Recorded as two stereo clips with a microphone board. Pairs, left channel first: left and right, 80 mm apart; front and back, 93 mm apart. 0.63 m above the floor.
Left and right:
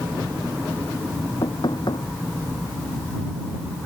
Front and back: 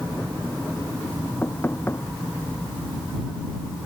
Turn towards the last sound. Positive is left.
turn(degrees=70)